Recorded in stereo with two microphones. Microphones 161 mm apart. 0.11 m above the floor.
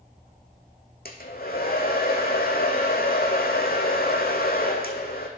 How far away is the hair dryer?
About 1.2 m.